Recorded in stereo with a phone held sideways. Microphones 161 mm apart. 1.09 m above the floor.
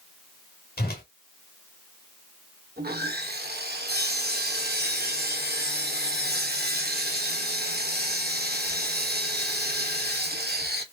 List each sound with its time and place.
0.8 s a whoosh: 75° left (ahead or behind), 1.7 m
2.8 s sawing: 85° right, 1.0 m